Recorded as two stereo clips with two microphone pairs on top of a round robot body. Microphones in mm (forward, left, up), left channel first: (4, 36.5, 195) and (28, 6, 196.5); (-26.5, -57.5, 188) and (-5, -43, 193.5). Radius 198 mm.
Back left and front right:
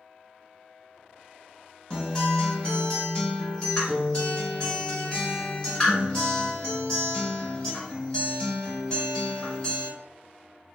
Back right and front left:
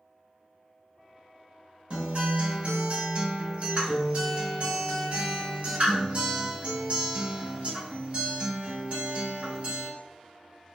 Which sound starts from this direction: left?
A guitar, at 1.9 s.